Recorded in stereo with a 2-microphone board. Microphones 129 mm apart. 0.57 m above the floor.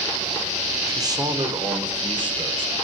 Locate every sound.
0.9 s a man speaking: 25° right (ahead or behind), 1.4 m; by 2.7 s 40° right (ahead or behind), 3 m